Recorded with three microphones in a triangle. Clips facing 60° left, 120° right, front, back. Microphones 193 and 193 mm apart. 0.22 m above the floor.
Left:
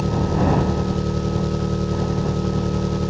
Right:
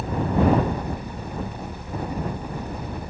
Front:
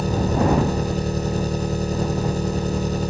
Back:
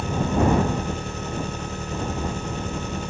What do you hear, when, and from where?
0.0 s an engine running: 55° left